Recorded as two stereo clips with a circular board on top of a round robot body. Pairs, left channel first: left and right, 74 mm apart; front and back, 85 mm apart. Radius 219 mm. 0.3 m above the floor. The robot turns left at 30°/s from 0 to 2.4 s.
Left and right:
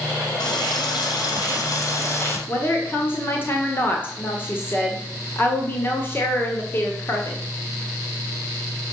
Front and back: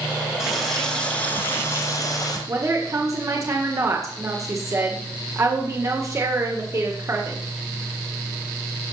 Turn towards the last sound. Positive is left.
turn(degrees=140)